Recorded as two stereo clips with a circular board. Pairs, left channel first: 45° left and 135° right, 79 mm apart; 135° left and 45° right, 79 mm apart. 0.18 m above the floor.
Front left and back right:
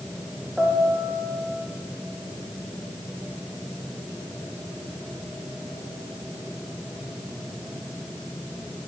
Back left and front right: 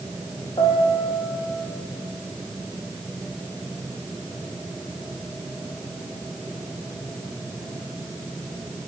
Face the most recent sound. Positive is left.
turn(degrees=145)